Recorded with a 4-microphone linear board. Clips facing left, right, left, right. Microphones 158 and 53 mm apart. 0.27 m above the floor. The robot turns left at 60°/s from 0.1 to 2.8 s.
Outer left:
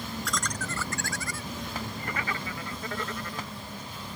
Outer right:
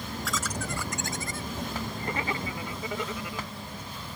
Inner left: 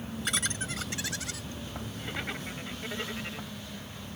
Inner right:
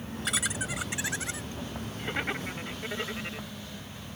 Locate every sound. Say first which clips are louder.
0.2 s laughter: outer right 1 dB, inner right 2 dB; centre (ahead or behind); by 3.5 s 10° right (ahead or behind)